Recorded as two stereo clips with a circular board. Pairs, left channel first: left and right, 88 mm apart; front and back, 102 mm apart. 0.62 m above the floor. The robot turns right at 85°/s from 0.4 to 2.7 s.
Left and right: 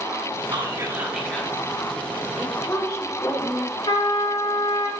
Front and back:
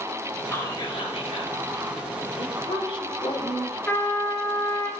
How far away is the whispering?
About 3.5 m.